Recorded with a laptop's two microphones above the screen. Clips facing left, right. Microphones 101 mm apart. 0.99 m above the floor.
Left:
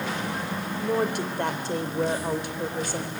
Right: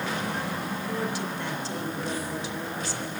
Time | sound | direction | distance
0.8 | a woman speaking | 55° left (ahead or behind) | 4 m